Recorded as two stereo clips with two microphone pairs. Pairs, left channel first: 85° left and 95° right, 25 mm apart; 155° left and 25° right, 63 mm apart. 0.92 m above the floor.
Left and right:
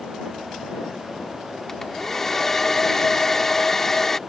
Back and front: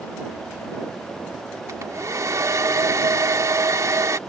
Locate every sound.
1.7 s a hair dryer: 5° left